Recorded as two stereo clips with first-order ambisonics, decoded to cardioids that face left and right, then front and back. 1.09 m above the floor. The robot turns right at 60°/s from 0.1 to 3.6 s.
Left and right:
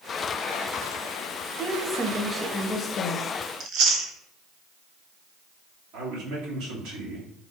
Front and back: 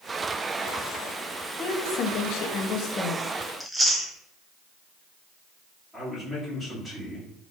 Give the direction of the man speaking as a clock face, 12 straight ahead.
3 o'clock.